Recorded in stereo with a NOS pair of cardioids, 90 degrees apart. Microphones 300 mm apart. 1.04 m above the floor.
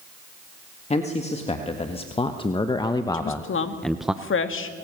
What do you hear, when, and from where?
0.9 s a man speaking: 20° left, 2 m; by 4.1 s 10° right, 0.6 m
3.1 s a woman speaking: 45° left, 2 m